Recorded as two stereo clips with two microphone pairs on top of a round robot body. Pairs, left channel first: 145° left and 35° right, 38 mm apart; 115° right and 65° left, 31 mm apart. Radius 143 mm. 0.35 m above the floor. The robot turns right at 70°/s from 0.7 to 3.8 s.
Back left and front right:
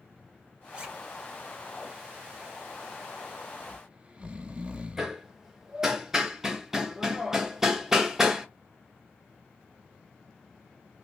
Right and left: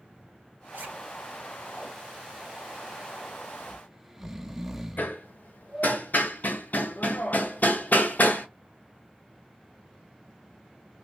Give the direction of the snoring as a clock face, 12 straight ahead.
12 o'clock.